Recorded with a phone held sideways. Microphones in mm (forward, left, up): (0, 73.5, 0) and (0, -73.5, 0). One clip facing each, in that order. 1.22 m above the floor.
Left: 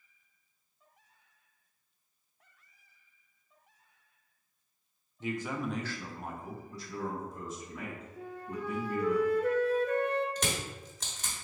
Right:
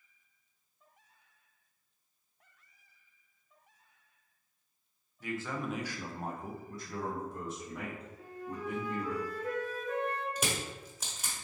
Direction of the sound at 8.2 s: 70° left (ahead or behind).